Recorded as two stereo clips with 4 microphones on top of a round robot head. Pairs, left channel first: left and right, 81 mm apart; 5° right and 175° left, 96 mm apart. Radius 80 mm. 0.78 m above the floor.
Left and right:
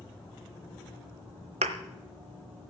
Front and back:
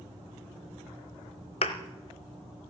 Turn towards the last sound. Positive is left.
turn(degrees=-55)